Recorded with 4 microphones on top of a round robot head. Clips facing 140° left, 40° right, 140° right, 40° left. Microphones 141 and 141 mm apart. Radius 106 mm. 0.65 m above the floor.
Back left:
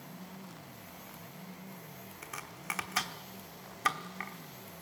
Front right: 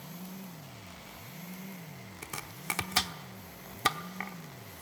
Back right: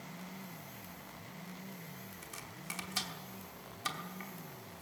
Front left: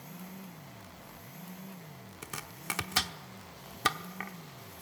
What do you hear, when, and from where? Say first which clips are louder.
2.2 s chopping: front right 3 dB, front left 5 dB; 20° left, 1.1 m